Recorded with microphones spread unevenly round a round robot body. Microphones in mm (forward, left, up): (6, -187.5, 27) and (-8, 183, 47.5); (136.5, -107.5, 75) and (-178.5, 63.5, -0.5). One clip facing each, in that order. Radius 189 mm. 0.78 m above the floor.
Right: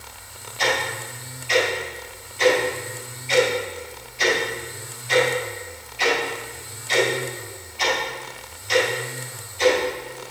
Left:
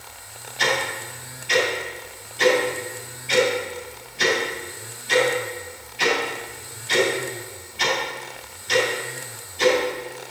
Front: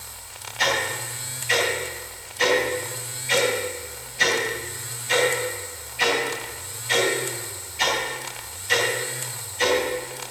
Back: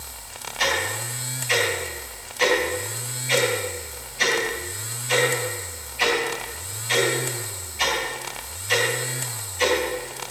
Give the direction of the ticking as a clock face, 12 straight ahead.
11 o'clock.